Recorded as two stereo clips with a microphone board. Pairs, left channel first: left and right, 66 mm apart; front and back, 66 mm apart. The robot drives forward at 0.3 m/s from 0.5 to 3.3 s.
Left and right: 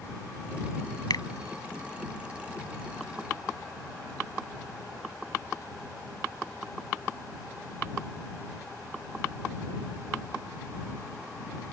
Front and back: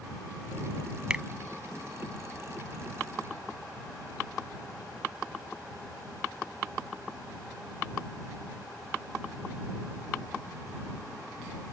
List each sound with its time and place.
1.1 s a finger snap: 105° left